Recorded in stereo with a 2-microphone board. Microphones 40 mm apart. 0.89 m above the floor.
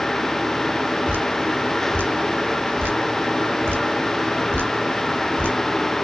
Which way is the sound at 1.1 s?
60° right (ahead or behind).